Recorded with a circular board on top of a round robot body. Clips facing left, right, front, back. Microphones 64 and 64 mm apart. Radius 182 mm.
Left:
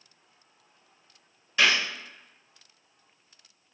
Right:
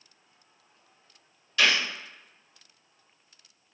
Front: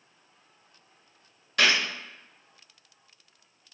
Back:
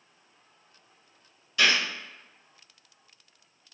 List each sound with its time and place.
1.6 s a gunshot: 25° left, 1.4 m